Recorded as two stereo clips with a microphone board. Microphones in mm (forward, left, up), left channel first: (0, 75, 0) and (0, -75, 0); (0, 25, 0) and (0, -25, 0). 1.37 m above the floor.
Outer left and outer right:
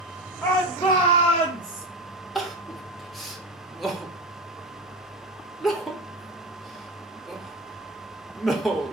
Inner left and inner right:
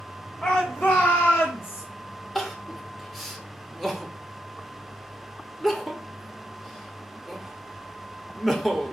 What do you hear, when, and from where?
0.4 s a shout: 15° left (ahead or behind), 1.7 m; by 1.9 s 70° left (ahead or behind), 0.8 m
2.4 s crying: centre (ahead or behind), 0.6 m